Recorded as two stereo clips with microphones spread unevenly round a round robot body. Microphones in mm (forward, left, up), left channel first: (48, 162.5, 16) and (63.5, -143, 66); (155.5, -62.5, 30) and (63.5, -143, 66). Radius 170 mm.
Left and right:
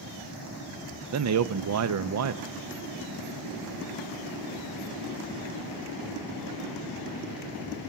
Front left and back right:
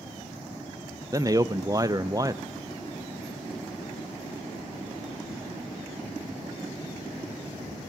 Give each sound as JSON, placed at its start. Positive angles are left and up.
{"t": 1.1, "sound": "a man speaking", "azimuth_deg": -65, "distance_m": 0.6}